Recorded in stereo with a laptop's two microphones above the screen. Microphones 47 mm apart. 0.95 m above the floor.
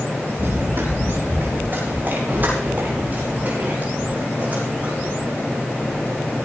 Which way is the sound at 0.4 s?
55° right (ahead or behind).